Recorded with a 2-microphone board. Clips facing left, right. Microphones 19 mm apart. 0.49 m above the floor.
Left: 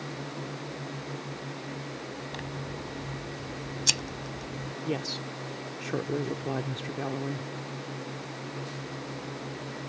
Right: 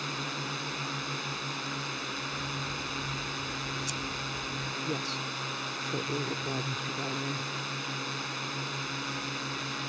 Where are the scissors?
75° left (ahead or behind).